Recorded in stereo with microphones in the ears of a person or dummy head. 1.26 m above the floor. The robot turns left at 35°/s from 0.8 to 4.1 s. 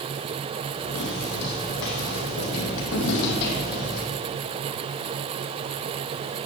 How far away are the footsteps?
About 4.5 m.